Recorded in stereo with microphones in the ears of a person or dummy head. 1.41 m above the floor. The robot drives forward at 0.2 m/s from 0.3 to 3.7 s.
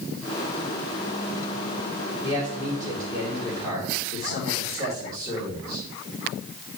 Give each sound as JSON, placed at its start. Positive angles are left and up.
{"t": 2.2, "sound": "a man speaking", "side_deg": 30, "distance_m": 1.8}